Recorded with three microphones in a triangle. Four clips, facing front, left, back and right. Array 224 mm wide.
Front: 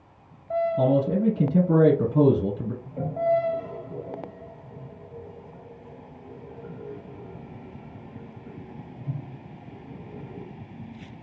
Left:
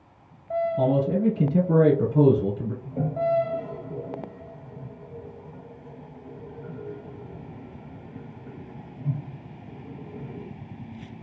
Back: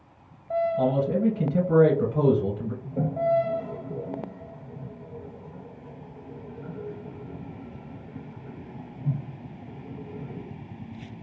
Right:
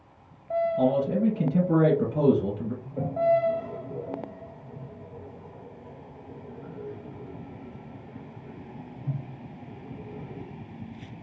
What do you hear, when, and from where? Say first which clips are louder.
0.8 s a man speaking: left 2 dB, front 4 dB; 25° left, 1.9 m
2.8 s a toilet flushing: right 2 dB, even; 130° left, 1.3 m